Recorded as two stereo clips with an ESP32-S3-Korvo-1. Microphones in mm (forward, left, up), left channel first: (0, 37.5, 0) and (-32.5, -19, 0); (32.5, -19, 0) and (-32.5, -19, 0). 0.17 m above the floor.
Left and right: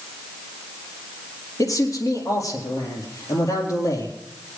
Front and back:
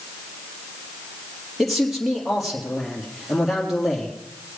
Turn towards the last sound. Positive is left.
turn(degrees=90)